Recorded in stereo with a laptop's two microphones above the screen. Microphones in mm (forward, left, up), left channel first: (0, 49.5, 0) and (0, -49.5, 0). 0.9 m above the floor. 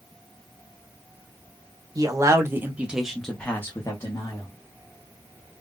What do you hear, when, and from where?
1.9 s a man speaking: 35° right (ahead or behind), 1.2 m; by 4.5 s 40° left (ahead or behind), 1.4 m